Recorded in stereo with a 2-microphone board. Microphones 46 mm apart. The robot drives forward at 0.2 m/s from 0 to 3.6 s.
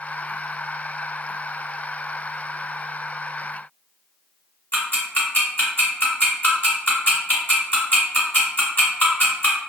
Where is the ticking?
35° left (ahead or behind), 1.3 m.